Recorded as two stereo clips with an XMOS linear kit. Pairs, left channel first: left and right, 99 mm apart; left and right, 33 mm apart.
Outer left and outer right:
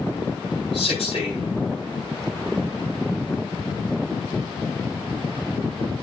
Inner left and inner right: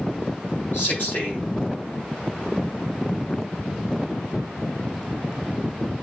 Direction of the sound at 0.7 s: 65° left (ahead or behind).